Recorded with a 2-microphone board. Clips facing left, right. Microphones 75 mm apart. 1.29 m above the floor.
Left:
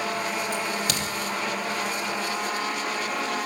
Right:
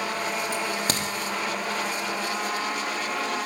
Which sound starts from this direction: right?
A crack, at 0.5 s.